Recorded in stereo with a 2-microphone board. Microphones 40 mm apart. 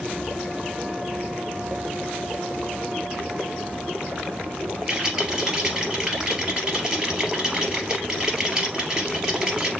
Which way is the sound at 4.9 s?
20° right (ahead or behind).